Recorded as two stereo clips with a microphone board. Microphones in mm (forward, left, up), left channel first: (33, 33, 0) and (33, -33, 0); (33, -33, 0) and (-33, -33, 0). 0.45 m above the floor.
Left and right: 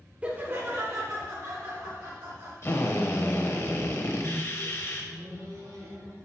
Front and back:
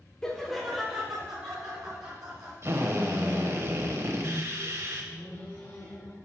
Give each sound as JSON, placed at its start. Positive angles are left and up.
{"t": 0.2, "sound": "laughter", "azimuth_deg": -60, "distance_m": 0.7}
{"t": 2.6, "sound": "a drill", "azimuth_deg": 135, "distance_m": 0.9}
{"t": 4.2, "sound": "a microwave", "azimuth_deg": -60, "distance_m": 1.6}